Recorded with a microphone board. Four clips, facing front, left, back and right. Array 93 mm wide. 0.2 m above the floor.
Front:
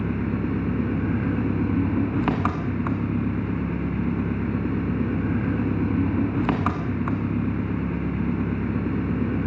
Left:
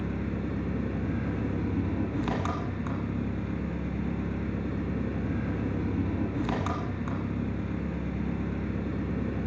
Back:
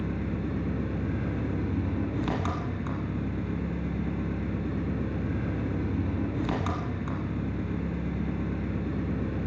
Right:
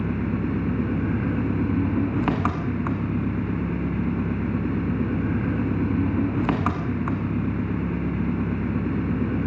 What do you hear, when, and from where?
0.0 s an engine running: 45° right, 1.5 m